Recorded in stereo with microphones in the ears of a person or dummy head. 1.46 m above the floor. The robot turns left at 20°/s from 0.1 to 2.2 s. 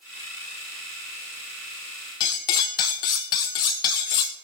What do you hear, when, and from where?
2.2 s cutlery clinking: 20° left (ahead or behind), 0.5 m